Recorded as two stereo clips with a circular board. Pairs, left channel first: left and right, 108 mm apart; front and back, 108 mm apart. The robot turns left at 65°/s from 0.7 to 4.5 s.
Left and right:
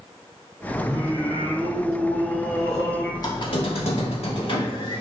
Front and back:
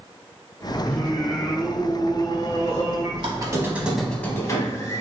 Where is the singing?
65° right, 1.7 m; by 3.1 s 145° left, 1.7 m.